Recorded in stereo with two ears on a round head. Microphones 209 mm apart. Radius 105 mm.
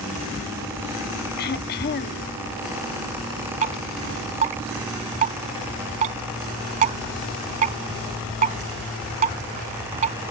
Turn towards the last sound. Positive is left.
turn(degrees=-35)  # may be behind; listen again after turning